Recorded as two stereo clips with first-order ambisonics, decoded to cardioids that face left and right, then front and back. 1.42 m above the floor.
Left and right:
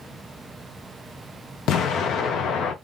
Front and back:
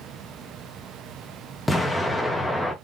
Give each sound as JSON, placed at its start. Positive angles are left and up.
{"t": 1.7, "sound": "an explosion", "azimuth_deg": 80, "distance_m": 0.6}